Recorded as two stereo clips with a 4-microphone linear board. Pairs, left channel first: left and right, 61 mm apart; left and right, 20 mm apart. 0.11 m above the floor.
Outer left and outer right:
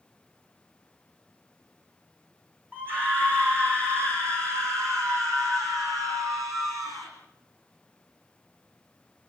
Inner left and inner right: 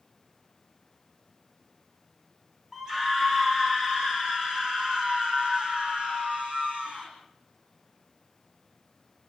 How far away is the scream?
About 7.5 m.